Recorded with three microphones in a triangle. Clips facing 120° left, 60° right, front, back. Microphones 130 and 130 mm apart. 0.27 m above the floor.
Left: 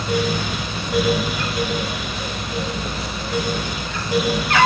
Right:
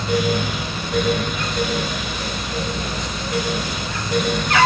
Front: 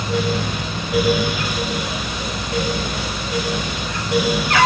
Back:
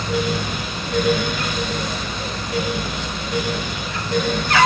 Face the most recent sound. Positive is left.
No sound to turn to.